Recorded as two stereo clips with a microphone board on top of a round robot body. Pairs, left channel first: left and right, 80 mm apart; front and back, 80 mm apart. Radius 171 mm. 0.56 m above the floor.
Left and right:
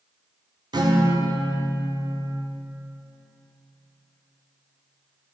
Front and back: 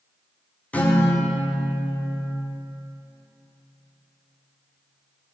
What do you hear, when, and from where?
0.7 s a guitar: 70° right, 1.9 m